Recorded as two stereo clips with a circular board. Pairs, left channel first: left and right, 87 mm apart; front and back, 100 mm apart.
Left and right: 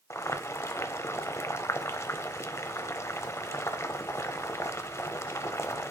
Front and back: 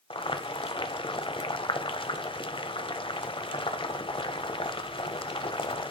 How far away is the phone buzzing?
I don't hear a phone buzzing.